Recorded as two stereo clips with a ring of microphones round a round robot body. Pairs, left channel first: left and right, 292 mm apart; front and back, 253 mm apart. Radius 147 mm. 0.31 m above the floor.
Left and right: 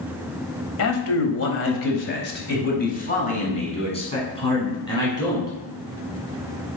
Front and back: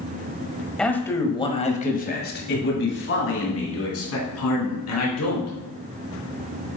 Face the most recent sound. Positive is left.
turn(degrees=10)